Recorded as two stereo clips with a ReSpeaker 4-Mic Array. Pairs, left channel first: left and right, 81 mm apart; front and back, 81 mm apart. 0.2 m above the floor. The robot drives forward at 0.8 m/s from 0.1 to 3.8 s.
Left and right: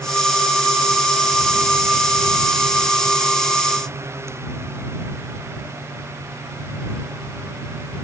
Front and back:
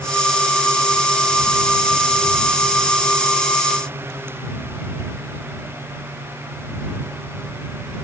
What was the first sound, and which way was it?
Only background noise.